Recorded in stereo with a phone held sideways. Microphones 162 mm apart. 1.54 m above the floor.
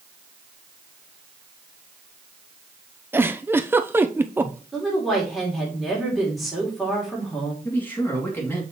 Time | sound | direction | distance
3.1 | a giggle | 15° right (ahead or behind) | 0.5 m
4.7 | a woman speaking | centre (ahead or behind) | 3 m
7.7 | a man speaking | 10° left (ahead or behind) | 3 m